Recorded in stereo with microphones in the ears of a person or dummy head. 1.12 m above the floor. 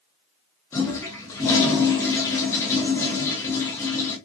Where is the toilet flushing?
15° left (ahead or behind), 0.9 m.